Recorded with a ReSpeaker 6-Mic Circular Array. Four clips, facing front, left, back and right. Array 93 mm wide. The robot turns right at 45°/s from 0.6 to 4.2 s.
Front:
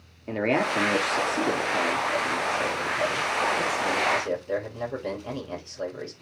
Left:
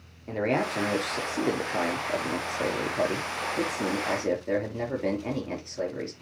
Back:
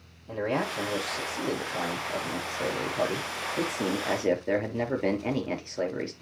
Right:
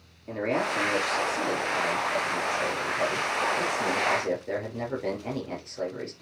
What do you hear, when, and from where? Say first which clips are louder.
0.3 s a man speaking: left 1 dB, front 5 dB; 10° left, 6 m; by 6.1 s 170° left, 6 m